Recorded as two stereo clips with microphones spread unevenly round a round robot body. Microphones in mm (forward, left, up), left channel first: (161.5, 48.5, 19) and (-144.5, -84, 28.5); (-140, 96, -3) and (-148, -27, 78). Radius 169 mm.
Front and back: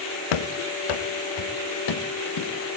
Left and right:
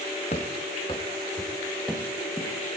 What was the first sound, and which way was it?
Running footsteps, 15° left.